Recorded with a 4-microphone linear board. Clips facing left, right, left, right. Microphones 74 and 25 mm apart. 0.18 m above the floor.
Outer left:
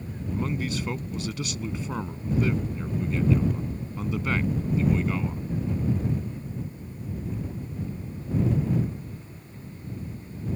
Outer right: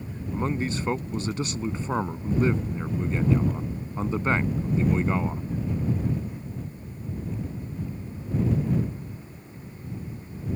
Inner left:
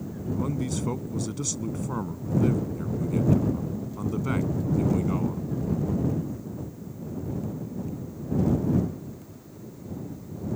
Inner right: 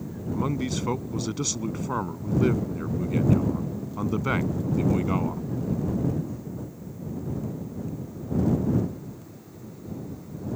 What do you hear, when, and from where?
0.3 s a man speaking: 35° right (ahead or behind)